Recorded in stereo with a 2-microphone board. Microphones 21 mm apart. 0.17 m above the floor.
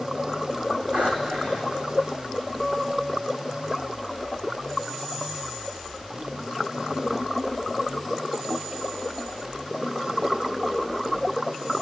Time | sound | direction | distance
0.9 | breathing | 75° right (ahead or behind) | 4.5 m
2.6 | a guitar | 10° right (ahead or behind) | 6.5 m